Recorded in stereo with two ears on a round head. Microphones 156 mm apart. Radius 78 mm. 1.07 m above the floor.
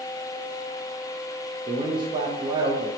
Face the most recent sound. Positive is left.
turn(degrees=-25)  # may be behind; listen again after turning